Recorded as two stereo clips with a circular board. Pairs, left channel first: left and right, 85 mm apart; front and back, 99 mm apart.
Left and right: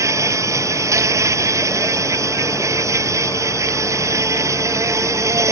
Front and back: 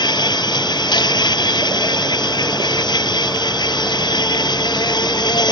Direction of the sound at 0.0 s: 40° right.